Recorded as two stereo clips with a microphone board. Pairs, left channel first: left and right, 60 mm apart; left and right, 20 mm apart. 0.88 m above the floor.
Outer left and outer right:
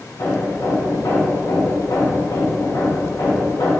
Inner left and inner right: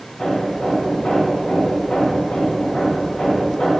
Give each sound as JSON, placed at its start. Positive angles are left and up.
{"t": 0.2, "sound": "hammering", "side_deg": 65, "distance_m": 2.0}